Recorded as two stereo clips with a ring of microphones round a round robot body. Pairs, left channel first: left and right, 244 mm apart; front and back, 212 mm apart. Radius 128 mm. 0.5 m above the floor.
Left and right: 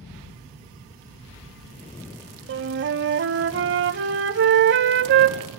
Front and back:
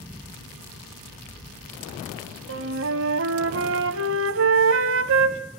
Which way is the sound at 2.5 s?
135° right.